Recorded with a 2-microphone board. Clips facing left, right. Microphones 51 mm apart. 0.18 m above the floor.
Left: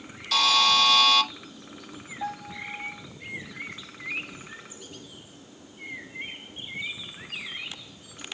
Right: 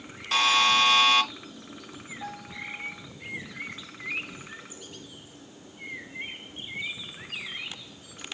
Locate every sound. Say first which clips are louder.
0.3 s a buzzer: even; 30° right (ahead or behind), 1.2 m
2.2 s a piano: left 5 dB; 15° left (ahead or behind), 2.5 m